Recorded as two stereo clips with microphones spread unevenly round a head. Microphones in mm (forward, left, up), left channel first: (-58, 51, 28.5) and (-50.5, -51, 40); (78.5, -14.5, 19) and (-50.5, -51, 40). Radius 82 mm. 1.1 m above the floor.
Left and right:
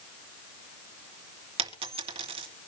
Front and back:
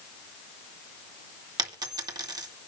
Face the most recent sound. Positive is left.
turn(degrees=-105)